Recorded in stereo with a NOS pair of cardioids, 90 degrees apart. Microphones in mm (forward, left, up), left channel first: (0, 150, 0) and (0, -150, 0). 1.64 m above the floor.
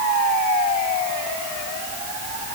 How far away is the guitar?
I don't hear a guitar.